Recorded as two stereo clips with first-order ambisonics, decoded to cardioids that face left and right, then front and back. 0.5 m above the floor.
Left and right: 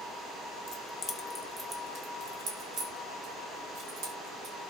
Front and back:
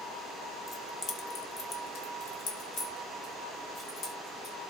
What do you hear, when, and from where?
0.7 s keys jangling: 75° left, 0.7 m; by 4.5 s 60° right, 2.5 m